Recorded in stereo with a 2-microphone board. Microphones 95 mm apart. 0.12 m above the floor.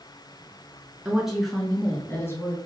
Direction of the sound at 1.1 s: 15° right (ahead or behind).